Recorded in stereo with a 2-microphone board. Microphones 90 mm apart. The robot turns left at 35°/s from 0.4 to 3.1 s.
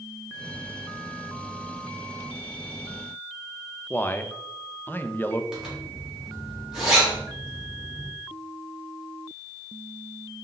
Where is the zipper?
5° right (ahead or behind), 2.5 m.